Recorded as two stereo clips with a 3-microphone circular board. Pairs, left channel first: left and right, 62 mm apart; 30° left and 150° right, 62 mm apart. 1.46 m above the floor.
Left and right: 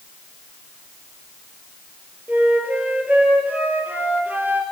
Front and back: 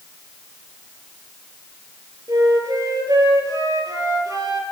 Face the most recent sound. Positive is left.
turn(degrees=-155)